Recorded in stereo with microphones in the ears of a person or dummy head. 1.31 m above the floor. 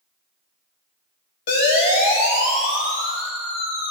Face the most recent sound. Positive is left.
turn(degrees=90)